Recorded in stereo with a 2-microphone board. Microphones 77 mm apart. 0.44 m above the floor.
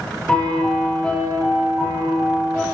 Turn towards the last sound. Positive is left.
turn(degrees=15)  # may be behind; listen again after turning